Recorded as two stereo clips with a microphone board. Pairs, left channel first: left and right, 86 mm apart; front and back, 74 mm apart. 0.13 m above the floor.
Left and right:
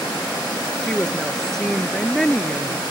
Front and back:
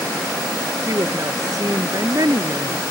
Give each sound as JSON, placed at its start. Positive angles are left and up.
{"t": 0.8, "sound": "a woman speaking", "azimuth_deg": 175}